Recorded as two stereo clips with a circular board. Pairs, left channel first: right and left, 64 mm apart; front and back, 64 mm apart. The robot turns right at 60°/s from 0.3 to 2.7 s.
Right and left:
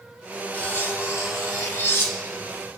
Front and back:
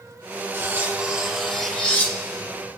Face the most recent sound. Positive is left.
turn(degrees=-15)